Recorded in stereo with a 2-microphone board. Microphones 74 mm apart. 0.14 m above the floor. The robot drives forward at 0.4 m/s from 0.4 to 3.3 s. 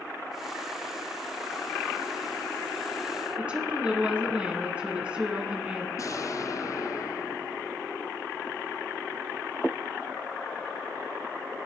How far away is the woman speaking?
About 1.6 m.